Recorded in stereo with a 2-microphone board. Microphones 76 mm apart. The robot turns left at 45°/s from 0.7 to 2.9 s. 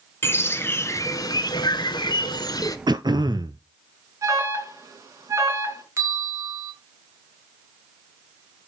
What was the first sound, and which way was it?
A bird, 145° left.